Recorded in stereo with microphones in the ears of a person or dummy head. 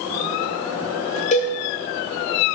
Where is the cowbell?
40° left (ahead or behind), 1.2 m.